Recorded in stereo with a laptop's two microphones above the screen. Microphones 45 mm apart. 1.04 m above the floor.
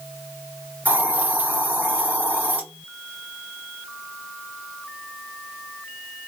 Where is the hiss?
40° right (ahead or behind), 2.5 m.